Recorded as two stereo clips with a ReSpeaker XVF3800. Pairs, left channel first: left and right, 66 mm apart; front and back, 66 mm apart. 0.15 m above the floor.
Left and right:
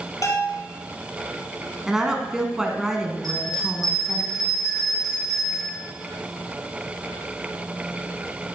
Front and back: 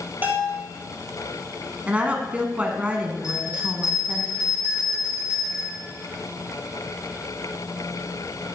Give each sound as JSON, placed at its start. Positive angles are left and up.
{"t": 0.2, "sound": "a bell", "azimuth_deg": 120, "distance_m": 2.5}
{"t": 1.9, "sound": "a woman speaking", "azimuth_deg": -155, "distance_m": 1.1}
{"t": 3.2, "sound": "a bell", "azimuth_deg": -105, "distance_m": 5.5}